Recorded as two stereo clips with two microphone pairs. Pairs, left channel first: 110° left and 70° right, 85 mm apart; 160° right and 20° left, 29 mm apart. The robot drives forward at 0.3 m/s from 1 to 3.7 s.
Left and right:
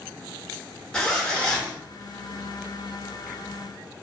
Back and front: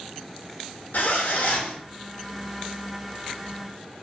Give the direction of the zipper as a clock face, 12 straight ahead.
6 o'clock.